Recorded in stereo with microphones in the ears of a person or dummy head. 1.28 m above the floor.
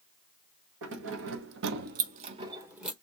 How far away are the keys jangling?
About 1.1 m.